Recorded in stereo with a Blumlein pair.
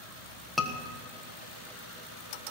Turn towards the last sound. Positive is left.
turn(degrees=0)